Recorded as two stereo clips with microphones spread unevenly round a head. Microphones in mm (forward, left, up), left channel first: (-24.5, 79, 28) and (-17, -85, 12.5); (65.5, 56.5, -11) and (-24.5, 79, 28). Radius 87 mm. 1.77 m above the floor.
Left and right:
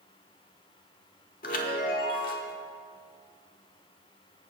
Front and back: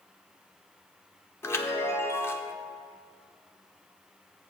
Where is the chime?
55° left, 1.1 m.